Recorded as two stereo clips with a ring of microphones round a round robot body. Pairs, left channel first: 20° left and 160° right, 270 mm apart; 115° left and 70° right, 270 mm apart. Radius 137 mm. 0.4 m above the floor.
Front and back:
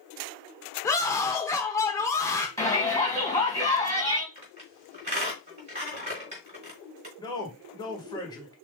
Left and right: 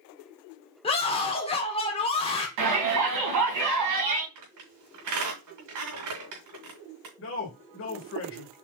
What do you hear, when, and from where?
0.8 s a scream: 85° left, 0.8 m
2.6 s a shout: 55° right, 3 m
4.3 s a squeak: 90° right, 3 m
7.2 s a man speaking: 95° left, 1.7 m